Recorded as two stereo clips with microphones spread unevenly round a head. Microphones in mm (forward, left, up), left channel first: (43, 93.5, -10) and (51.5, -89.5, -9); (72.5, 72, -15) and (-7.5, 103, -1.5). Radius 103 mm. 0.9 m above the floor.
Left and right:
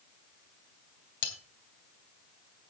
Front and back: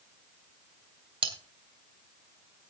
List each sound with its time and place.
1.2 s cutlery clinking: 150° left, 2.5 m